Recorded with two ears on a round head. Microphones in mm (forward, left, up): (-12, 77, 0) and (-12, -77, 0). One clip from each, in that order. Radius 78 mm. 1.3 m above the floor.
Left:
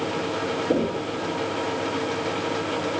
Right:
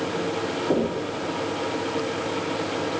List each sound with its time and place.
0.7 s knocking: 45° right (ahead or behind), 3 m